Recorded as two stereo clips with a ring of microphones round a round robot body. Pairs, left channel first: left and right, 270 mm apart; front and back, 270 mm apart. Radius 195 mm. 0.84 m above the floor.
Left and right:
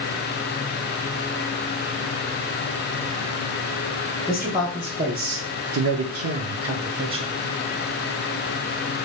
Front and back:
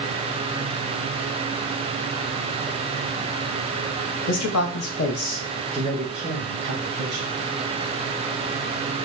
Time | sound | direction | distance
4.3 | a man speaking | straight ahead | 0.8 m